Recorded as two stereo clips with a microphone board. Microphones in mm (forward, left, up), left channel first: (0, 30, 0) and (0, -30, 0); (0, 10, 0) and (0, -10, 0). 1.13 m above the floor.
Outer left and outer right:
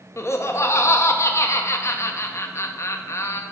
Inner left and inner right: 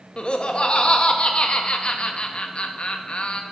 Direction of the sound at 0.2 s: 55° left (ahead or behind).